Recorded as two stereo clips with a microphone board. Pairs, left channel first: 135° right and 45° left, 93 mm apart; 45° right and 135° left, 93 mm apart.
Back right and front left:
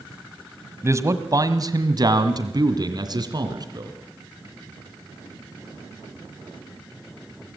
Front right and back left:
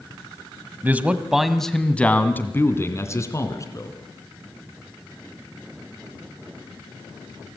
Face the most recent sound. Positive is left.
turn(degrees=5)